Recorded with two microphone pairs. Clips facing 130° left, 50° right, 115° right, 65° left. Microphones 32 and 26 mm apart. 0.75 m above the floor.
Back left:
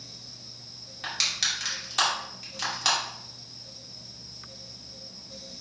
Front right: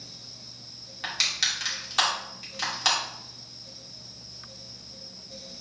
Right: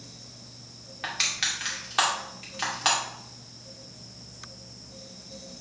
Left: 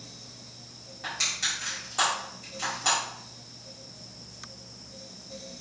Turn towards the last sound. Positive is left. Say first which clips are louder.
# front right 1 dB, right 2 dB
turn(degrees=-135)